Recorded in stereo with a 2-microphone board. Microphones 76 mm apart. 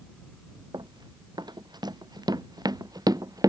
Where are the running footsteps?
65° right (ahead or behind); by 3.5 s 50° right (ahead or behind).